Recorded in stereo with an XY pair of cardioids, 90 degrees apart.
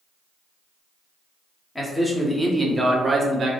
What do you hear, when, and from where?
1.8 s a man speaking: 15° left, 1.1 m; by 3.5 s 50° right, 0.7 m